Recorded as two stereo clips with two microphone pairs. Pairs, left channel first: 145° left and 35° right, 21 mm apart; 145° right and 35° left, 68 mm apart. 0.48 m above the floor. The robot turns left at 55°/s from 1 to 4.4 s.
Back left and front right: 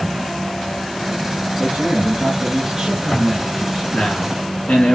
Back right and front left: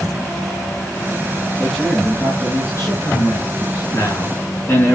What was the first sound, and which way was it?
A man speaking, 40° right.